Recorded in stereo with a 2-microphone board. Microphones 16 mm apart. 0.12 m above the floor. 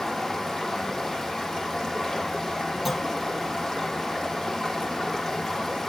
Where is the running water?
25° left (ahead or behind), 5 m.